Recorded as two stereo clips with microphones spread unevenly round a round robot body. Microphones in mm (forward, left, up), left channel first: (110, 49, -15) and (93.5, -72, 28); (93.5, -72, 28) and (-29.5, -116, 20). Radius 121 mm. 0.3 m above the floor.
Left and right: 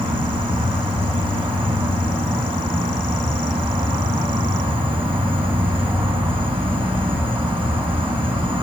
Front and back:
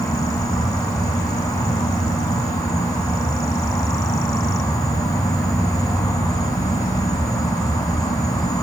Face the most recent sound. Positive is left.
turn(degrees=-45)